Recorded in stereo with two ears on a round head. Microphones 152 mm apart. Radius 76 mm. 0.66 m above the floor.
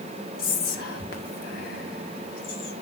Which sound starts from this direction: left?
Whispering, at 0.4 s.